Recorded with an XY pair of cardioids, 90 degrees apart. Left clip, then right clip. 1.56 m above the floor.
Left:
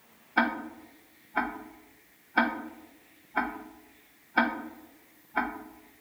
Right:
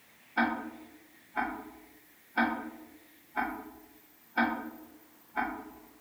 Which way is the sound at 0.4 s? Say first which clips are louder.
Left 3 dB; 55° left.